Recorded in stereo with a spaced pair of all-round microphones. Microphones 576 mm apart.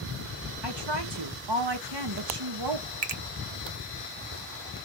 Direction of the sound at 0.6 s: 45° right (ahead or behind).